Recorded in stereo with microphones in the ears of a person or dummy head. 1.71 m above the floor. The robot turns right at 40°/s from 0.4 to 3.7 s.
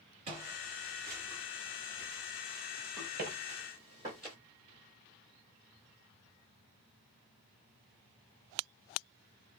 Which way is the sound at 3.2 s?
35° right (ahead or behind).